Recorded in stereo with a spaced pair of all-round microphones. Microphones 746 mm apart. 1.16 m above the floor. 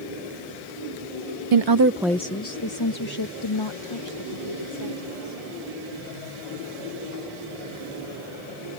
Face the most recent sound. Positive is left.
turn(degrees=40)  # may be behind; listen again after turning